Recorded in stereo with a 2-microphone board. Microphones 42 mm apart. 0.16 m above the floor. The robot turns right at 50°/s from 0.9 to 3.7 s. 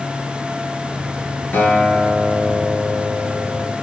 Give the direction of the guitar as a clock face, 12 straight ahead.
9 o'clock.